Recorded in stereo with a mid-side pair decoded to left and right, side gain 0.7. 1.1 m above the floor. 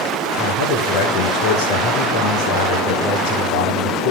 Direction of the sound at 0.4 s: 60° left.